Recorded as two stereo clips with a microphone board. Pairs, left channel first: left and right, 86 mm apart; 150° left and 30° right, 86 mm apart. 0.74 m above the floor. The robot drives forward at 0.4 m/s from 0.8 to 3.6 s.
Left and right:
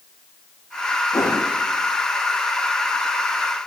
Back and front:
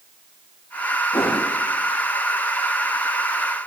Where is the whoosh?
130° left, 7.5 m; by 1.4 s 135° left, 7.5 m.